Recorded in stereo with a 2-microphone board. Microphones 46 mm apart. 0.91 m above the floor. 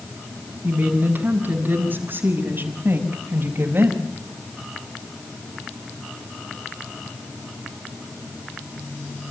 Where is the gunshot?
No gunshot in this recording.